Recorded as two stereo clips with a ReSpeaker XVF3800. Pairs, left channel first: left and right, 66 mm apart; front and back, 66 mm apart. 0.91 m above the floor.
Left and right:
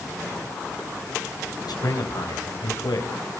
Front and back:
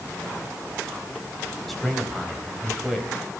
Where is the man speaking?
85° left, 4.5 m.